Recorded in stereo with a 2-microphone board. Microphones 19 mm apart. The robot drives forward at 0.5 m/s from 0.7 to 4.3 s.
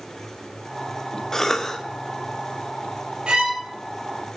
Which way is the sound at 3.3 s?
60° right (ahead or behind).